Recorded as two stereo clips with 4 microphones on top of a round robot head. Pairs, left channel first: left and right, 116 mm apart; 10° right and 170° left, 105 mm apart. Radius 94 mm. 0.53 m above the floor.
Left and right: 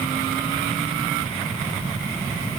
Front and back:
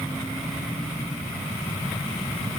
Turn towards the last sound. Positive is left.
No sound to turn to.